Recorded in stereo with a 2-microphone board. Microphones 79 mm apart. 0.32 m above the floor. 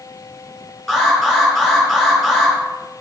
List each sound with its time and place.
0.9 s an alarm: centre (ahead or behind), 4 m